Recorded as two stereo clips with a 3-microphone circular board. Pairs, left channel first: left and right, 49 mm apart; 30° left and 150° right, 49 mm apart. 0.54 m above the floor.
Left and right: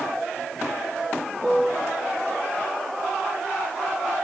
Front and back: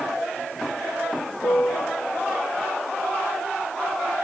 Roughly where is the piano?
Ahead.